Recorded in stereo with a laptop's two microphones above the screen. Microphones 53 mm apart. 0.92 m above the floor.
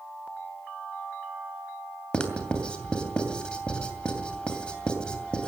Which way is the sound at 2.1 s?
20° left (ahead or behind).